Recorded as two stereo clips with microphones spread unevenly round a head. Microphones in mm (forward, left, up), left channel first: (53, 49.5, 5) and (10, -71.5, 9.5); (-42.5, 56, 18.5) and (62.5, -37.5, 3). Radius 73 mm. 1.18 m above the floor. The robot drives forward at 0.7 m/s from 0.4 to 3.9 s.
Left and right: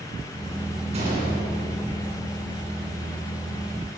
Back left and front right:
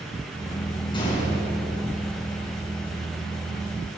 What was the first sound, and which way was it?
A gunshot, 160° right.